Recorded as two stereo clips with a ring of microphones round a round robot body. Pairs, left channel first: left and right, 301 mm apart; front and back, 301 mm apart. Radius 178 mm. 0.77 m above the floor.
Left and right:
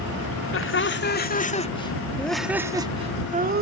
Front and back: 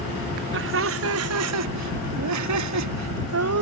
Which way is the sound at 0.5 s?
130° left.